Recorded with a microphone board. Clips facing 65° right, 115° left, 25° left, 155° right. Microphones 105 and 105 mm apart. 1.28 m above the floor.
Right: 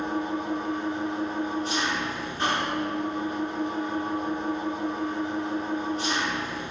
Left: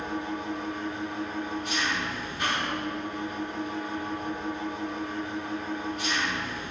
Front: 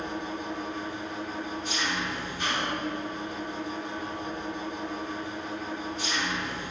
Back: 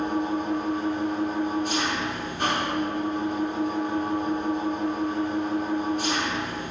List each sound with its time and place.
0.0 s an engine running: 125° right, 3 m